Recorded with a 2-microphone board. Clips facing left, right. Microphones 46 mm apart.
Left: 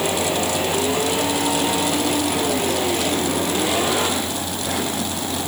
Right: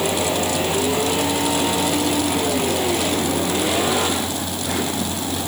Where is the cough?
No cough in this recording.